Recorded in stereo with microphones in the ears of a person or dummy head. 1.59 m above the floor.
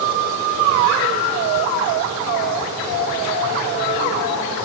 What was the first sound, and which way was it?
Only background noise.